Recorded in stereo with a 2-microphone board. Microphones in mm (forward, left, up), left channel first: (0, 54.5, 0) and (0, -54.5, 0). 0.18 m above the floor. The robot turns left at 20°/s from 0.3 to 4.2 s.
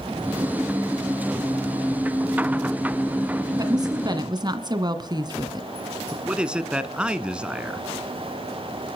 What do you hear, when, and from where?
3.6 s a woman speaking: 35° right (ahead or behind), 1.8 m; by 5.7 s 40° right (ahead or behind), 1.8 m
6.1 s a man speaking: 10° right (ahead or behind), 1.6 m